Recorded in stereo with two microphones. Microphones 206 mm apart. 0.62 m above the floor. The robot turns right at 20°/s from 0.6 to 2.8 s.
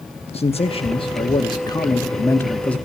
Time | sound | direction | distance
0.3 | a man speaking | 125° left | 0.8 m